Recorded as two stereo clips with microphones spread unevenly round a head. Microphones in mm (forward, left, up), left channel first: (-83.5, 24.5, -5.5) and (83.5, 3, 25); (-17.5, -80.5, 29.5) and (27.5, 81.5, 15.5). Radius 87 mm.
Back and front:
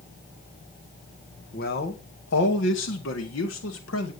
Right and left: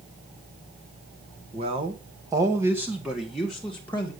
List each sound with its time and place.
1.5 s a man speaking: 130° left, 1.9 m; by 4.1 s 175° left, 2 m